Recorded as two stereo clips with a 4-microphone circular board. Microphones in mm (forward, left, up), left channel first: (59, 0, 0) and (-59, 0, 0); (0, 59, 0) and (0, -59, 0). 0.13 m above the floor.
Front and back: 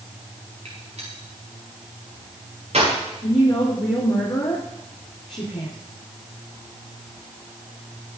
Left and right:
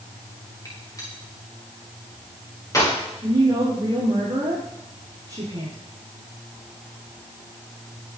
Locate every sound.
0.7 s a gunshot: 150° left, 5.5 m
3.2 s a woman speaking: 35° right, 4 m